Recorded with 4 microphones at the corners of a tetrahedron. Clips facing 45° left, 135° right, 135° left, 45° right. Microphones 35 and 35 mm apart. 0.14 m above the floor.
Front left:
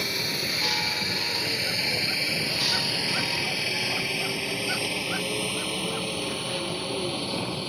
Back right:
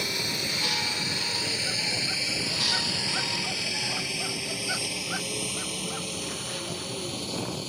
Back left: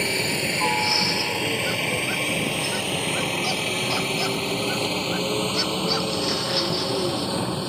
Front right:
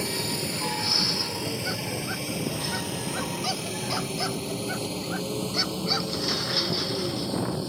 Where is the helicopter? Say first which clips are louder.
Front left 1 dB, back left 6 dB; 125° left; by 7.7 s 105° left.